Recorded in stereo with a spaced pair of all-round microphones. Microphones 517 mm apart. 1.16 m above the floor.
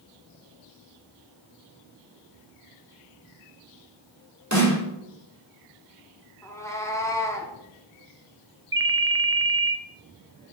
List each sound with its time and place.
4.5 s a snare drum: 30° right (ahead or behind), 2.5 m
6.4 s a cat meowing: 5° left (ahead or behind), 1.1 m
8.7 s a ringtone: 25° right (ahead or behind), 0.8 m